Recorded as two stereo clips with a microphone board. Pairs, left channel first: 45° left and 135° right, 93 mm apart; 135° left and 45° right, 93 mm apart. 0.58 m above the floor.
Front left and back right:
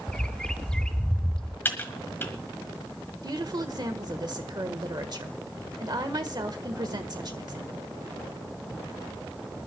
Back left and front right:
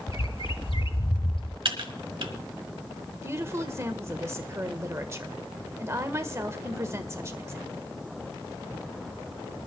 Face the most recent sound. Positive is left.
turn(degrees=-100)